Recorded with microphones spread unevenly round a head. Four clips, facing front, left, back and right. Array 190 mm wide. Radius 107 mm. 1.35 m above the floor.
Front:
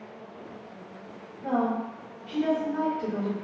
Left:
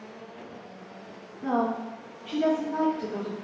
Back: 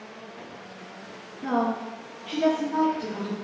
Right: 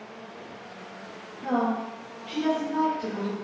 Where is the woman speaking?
175° left, 0.8 m; by 3.4 s 95° left, 1.0 m.